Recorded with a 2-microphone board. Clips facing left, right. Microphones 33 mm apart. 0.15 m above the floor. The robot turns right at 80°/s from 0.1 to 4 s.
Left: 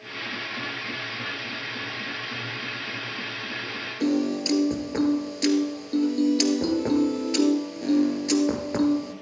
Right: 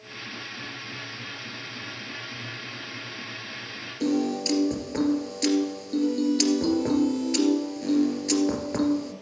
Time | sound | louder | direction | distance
4.0 | a piano | left 1 dB | 10° left (ahead or behind) | 1.8 m